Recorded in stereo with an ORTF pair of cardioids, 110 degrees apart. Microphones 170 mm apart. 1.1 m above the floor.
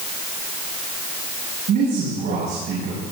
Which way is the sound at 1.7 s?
65° right.